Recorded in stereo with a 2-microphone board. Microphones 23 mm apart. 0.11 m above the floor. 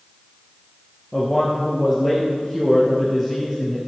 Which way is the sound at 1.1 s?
5° right (ahead or behind).